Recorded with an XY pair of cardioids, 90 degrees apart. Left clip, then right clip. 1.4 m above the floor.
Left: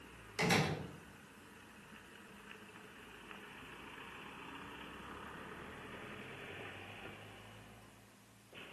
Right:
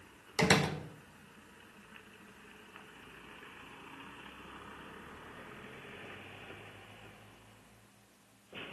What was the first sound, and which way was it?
A door slam, 65° right.